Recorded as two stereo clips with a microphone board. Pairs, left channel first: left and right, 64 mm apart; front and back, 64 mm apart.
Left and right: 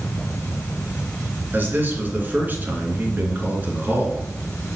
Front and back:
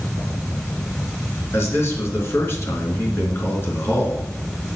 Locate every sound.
1.5 s a man speaking: 35° right, 2.5 m